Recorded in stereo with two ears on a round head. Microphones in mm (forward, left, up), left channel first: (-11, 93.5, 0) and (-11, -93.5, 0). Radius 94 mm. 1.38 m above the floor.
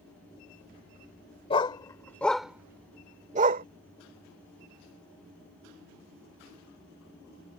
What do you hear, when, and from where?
1.5 s a dog barking: 25° left (ahead or behind); by 3.6 s 45° right (ahead or behind)